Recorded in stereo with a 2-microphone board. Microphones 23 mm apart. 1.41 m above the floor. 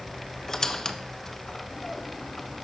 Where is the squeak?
20° left (ahead or behind), 0.6 m.